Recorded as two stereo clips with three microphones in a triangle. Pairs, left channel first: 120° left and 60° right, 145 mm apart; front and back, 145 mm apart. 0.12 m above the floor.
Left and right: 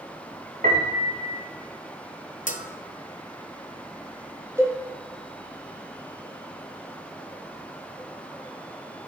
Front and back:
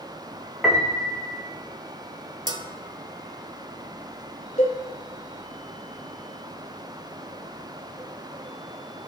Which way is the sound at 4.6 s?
10° left.